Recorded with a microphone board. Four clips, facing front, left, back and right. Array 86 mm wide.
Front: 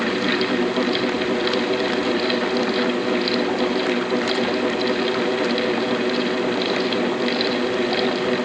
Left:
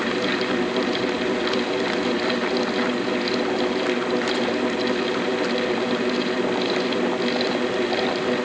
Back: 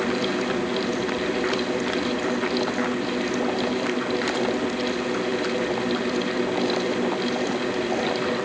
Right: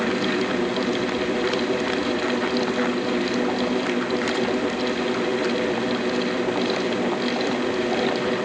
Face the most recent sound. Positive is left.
No sound to turn to.